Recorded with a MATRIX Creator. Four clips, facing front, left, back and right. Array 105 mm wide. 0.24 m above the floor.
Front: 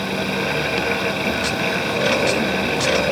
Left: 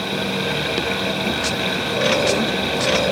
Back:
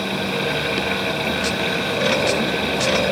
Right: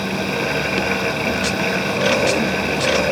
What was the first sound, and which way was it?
Only background noise.